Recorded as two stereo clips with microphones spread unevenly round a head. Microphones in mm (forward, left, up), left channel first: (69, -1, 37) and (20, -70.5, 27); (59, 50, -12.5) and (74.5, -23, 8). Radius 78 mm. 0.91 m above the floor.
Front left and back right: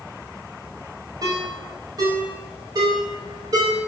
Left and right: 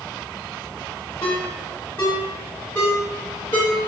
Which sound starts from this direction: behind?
A ringtone, at 1.2 s.